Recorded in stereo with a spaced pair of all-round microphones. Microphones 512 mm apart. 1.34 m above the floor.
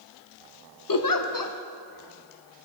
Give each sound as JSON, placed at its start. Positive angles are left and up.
{"t": 0.9, "sound": "a giggle", "side_deg": 40, "distance_m": 0.6}